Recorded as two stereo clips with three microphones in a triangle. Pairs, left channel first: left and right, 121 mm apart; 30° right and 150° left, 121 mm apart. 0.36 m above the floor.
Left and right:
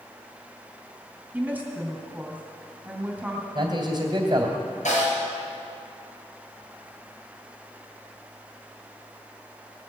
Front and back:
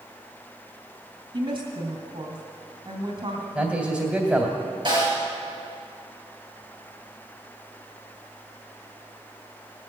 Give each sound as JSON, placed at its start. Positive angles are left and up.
{"t": 1.3, "sound": "a woman speaking", "azimuth_deg": -165, "distance_m": 2.5}
{"t": 3.5, "sound": "a man speaking", "azimuth_deg": -135, "distance_m": 2.0}
{"t": 4.8, "sound": "a snare drum", "azimuth_deg": 95, "distance_m": 5.0}